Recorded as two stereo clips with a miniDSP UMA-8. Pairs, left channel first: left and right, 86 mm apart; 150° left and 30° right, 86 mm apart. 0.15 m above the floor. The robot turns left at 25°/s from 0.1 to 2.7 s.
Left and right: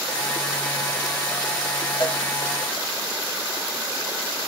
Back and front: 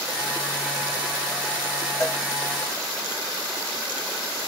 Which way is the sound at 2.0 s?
95° left.